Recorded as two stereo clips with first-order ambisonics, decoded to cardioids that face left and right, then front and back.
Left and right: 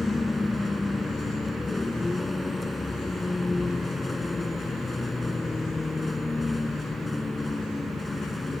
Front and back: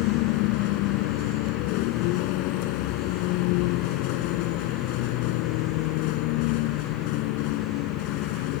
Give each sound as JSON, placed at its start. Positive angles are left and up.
{"t": 0.0, "sound": "a vehicle", "azimuth_deg": 10}